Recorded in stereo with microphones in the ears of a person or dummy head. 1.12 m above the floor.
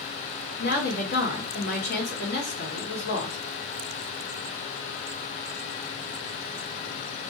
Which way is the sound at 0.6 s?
60° left (ahead or behind).